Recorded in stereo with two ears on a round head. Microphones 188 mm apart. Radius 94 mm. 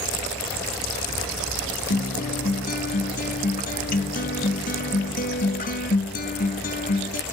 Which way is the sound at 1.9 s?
40° left (ahead or behind).